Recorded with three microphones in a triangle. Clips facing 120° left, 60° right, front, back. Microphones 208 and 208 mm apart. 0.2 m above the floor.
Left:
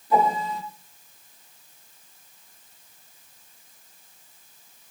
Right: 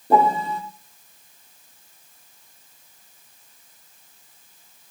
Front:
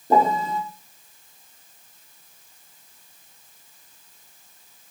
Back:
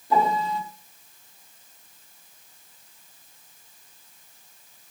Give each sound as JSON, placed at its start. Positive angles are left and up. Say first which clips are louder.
{"t": 0.1, "sound": "a piano", "louder": "right 4 dB, front 3 dB", "azimuth_deg": -35, "distance_m": 5.0}